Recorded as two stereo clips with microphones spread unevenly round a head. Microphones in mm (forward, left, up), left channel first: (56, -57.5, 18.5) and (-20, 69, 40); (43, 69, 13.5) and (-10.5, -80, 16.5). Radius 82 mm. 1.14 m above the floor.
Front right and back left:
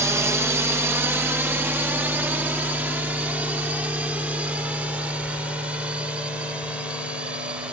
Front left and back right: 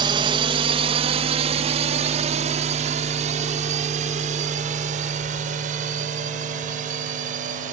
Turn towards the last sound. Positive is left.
turn(degrees=-155)